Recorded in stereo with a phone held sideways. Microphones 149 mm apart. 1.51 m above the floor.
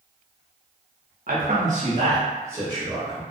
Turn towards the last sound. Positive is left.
turn(degrees=0)  # may be behind; listen again after turning